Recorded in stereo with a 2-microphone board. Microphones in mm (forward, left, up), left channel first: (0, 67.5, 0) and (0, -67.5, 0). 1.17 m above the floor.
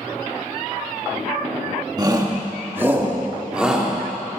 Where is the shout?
30° right (ahead or behind), 1.6 m; by 3.9 s 5° right (ahead or behind), 2.5 m.